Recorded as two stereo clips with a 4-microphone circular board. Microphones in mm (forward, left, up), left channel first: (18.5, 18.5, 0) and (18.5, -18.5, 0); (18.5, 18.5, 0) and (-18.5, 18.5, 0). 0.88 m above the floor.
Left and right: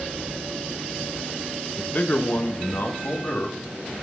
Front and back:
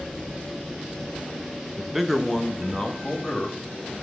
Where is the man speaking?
110° left, 0.8 m; by 4.0 s 65° left, 2 m.